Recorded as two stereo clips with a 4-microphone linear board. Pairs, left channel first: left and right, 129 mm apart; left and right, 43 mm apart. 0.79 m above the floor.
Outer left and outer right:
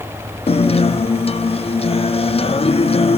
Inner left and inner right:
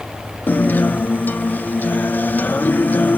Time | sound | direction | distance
0.5 | a guitar | 50° left (ahead or behind) | 0.6 m